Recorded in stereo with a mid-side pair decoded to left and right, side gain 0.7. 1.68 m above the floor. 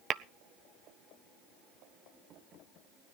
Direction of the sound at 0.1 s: 40° right.